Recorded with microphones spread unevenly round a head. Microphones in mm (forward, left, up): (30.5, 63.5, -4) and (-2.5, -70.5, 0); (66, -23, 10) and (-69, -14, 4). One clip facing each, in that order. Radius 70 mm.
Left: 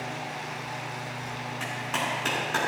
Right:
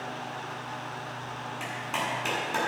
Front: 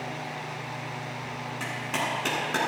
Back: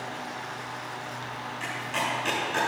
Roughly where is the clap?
Ahead right.